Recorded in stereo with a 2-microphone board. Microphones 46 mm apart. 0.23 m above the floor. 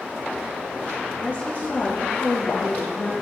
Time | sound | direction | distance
1.2 | a woman speaking | 30° left (ahead or behind) | 4 m